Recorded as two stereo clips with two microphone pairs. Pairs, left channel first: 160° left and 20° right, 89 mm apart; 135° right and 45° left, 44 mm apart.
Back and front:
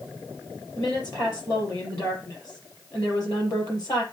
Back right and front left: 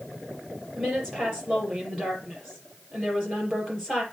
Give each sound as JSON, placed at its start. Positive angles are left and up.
{"t": 0.8, "sound": "a woman speaking", "azimuth_deg": 120, "distance_m": 5.0}